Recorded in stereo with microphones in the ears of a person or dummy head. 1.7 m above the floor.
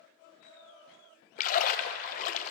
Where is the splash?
40° left (ahead or behind), 0.8 m.